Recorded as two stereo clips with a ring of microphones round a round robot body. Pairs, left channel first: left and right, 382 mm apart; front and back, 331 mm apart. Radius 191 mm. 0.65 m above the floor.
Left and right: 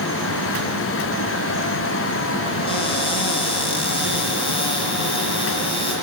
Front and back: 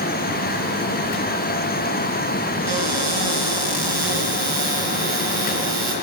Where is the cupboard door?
165° left, 3.5 m.